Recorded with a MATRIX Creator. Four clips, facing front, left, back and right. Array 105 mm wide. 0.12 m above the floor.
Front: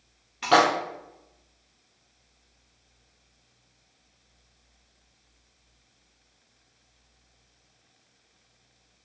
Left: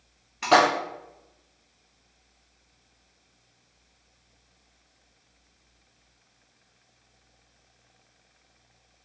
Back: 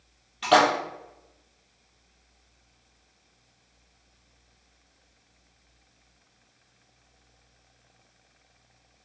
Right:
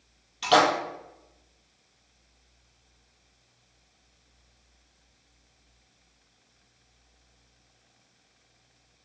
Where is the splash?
70° left, 0.8 m.